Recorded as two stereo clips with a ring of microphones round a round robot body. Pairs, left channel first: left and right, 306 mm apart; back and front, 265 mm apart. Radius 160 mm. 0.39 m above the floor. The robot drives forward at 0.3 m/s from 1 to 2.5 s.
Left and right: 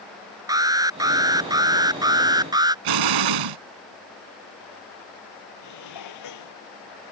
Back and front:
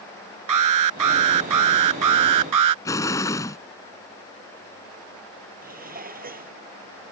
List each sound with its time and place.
0.5 s an alarm: 10° right
2.9 s an explosion: 100° right
5.6 s dishes clattering: 55° left